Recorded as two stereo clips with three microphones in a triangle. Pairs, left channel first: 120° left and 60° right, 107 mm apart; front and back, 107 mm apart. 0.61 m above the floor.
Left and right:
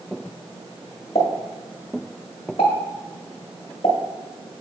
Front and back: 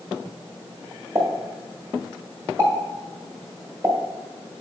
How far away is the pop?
About 1.6 m.